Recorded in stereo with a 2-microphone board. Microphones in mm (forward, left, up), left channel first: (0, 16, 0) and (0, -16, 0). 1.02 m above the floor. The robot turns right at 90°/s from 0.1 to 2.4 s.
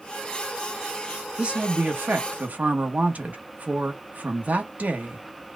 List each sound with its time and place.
1.4 s a woman speaking: 150° right, 1.2 m; by 5.2 s 60° right, 1.2 m